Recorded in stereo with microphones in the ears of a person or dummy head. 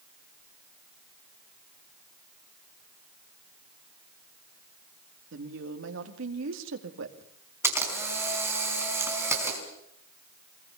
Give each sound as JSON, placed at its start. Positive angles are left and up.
{"t": 5.3, "sound": "a woman speaking", "side_deg": -70, "distance_m": 2.5}
{"t": 7.6, "sound": "a camera shutter", "side_deg": -10, "distance_m": 4.5}